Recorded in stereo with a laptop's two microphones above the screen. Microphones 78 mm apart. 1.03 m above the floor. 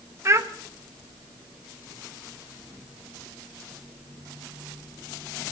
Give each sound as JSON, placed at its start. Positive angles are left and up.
{"t": 0.2, "sound": "a child speaking", "side_deg": -35, "distance_m": 1.0}